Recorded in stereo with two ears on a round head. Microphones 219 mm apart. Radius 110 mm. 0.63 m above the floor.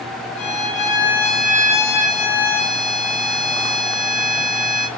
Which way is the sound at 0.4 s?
30° left (ahead or behind).